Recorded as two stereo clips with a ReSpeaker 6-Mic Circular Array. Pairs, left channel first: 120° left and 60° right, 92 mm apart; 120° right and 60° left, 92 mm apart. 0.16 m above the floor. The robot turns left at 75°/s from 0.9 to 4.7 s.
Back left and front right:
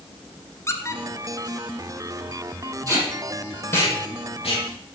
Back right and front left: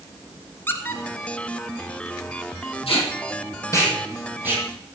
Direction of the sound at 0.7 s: 175° left.